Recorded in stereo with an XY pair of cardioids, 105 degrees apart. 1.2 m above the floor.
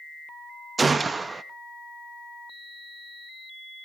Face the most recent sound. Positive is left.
turn(degrees=-30)